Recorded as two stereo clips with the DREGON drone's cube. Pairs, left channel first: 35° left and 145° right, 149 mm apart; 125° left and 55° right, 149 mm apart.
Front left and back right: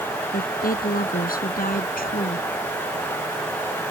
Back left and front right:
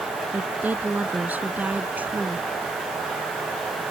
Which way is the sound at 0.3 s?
25° left.